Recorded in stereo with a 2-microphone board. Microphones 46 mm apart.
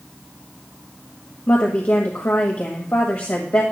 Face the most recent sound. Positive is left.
turn(degrees=55)  # may be behind; listen again after turning